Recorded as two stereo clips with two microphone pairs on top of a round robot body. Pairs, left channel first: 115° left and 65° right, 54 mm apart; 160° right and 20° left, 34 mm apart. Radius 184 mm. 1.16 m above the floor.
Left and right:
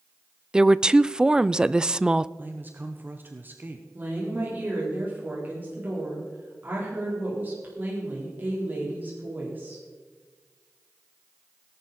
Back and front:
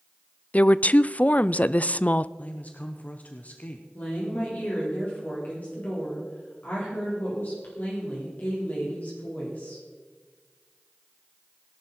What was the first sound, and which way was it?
A woman speaking, 150° right.